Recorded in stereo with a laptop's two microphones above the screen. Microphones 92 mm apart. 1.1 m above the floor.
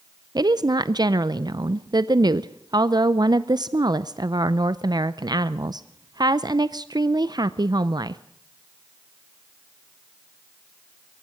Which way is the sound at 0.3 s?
50° right (ahead or behind).